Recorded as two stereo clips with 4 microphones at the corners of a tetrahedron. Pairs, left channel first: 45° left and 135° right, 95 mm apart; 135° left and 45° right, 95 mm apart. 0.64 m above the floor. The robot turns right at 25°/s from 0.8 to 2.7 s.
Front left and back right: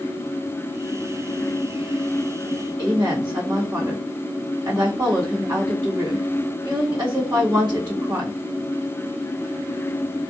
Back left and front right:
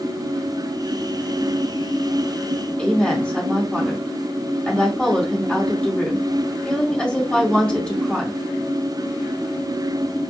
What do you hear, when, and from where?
2.8 s a woman speaking: 150° right, 1.4 m